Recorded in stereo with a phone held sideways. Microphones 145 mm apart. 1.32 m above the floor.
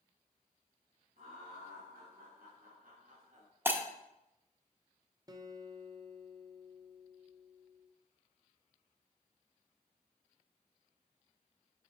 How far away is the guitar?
About 0.6 m.